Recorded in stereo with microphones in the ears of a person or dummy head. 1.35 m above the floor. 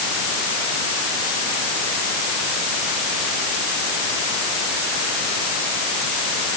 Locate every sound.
Only background noise.